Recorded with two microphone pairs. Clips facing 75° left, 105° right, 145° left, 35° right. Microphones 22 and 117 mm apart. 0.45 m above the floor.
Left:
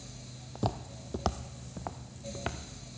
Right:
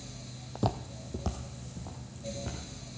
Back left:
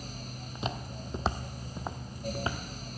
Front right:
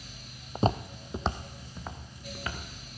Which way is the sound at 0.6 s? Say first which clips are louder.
Right 2 dB, front right 9 dB; 30° right.